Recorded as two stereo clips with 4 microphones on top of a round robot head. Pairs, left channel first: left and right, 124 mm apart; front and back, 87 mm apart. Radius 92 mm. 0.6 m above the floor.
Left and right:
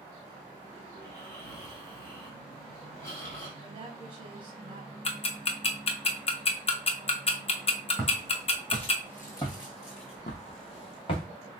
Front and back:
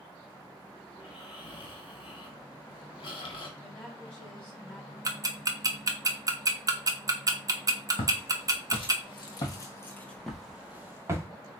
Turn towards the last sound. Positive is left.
turn(degrees=130)